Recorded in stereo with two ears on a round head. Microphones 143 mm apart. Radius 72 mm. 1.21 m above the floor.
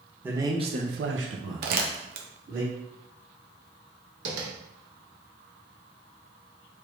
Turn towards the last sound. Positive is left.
turn(degrees=-70)  # may be behind; listen again after turning